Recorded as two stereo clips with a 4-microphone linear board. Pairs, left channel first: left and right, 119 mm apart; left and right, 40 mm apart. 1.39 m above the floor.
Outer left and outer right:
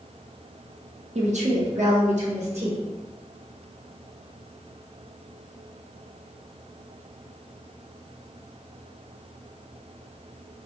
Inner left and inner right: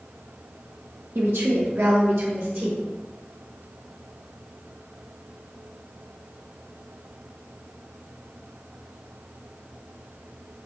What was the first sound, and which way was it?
A woman speaking, 75° right (ahead or behind).